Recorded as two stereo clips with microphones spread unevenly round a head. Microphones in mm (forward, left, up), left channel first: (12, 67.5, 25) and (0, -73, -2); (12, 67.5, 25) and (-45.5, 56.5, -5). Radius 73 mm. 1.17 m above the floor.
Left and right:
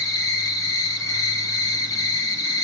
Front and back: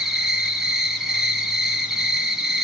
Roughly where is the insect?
Behind left.